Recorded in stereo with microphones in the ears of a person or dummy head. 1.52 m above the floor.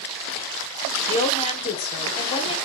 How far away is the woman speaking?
About 0.7 m.